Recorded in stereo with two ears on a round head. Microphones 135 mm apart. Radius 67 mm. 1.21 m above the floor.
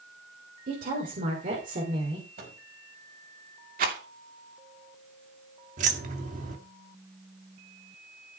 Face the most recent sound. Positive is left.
turn(degrees=-50)  # may be behind; listen again after turning